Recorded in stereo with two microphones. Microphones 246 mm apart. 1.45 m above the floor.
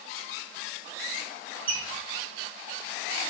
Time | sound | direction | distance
1.7 | a squeak | 35° right (ahead or behind) | 1.1 m